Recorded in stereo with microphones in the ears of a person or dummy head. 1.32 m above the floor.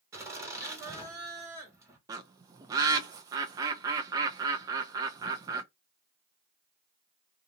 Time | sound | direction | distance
0.1 | laughter | 20° right (ahead or behind) | 1.8 m
2.1 | a bird | 25° right (ahead or behind) | 0.5 m